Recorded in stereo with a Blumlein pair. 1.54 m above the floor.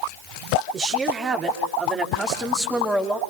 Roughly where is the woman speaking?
Ahead right.